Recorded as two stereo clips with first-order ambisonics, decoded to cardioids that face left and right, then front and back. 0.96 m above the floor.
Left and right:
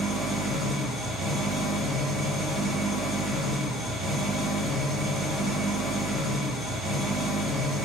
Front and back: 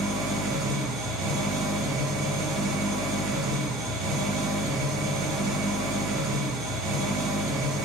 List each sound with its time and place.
0.0 s an engine running: straight behind, 9 m